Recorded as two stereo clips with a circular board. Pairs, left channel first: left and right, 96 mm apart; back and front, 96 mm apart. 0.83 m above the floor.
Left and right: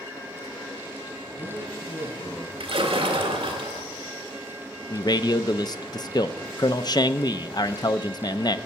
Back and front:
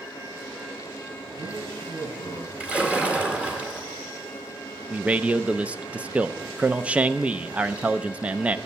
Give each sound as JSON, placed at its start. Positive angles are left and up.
{"t": 1.3, "sound": "a man speaking", "azimuth_deg": 65, "distance_m": 6.0}
{"t": 2.6, "sound": "a splash", "azimuth_deg": -75, "distance_m": 2.0}
{"t": 4.9, "sound": "a man speaking", "azimuth_deg": 75, "distance_m": 0.5}